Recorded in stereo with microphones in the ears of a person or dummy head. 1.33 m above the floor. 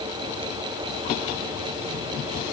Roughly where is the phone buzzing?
No phone buzzing in this recording.